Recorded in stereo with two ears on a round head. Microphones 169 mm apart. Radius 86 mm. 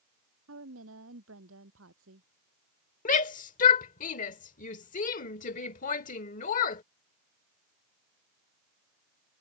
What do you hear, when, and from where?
0.5 s a woman speaking: 75° right (ahead or behind)
3.0 s a shout: 45° left (ahead or behind)